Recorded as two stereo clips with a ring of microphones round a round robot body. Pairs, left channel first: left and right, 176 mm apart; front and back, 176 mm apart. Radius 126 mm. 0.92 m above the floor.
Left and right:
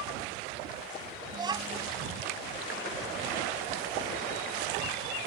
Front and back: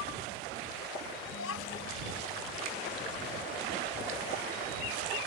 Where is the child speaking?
25° right.